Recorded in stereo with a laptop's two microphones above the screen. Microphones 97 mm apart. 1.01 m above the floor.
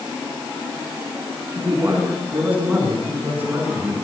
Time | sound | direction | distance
1.5 | a man speaking | 20° right (ahead or behind) | 8.5 m